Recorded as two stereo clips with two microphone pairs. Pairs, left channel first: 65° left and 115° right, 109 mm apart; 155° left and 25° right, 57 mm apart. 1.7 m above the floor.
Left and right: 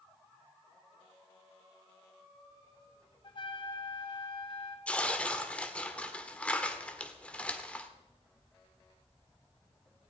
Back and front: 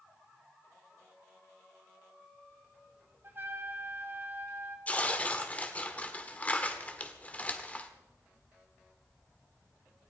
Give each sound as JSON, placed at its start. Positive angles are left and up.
{"t": 3.2, "sound": "a trumpet", "azimuth_deg": 25, "distance_m": 1.5}
{"t": 4.9, "sound": "tearing paper", "azimuth_deg": 130, "distance_m": 1.4}